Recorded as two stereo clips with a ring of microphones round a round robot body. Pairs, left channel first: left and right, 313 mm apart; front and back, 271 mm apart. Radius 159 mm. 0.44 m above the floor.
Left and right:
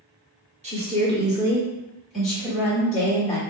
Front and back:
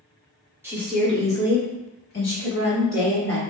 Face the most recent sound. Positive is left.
turn(degrees=10)